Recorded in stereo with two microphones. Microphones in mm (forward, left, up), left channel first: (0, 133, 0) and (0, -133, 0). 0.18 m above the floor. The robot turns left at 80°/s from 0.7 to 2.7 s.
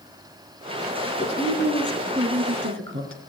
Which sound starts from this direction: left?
A woman speaking, at 1.1 s.